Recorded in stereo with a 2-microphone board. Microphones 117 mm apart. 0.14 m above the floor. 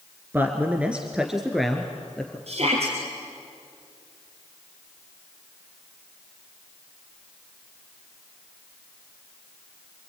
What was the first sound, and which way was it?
A man speaking, 20° right (ahead or behind).